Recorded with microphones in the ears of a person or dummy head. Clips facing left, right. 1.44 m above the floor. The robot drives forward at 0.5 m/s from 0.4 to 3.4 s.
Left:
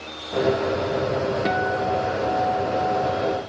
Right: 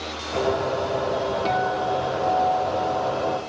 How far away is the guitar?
About 0.7 m.